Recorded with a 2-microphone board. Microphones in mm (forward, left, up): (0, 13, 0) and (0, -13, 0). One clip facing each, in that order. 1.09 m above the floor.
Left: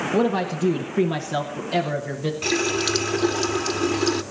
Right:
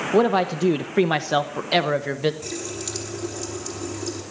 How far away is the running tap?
About 1.2 m.